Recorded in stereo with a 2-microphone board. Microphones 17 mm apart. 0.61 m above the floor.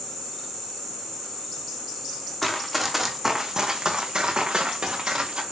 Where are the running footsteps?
5° left (ahead or behind), 1.7 m; by 5.4 s 80° right, 3 m.